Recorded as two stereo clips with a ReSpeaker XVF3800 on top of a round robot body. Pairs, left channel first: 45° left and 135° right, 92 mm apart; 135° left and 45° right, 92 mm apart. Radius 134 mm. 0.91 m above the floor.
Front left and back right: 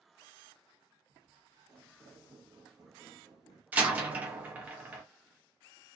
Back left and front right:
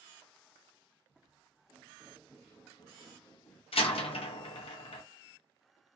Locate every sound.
1.1 s footsteps: 105° right, 1.3 m; by 3.6 s 145° left, 1.0 m
3.7 s a door slam: 150° left, 0.6 m